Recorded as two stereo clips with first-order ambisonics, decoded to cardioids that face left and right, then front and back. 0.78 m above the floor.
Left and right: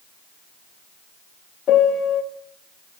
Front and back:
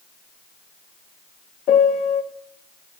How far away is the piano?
About 0.8 m.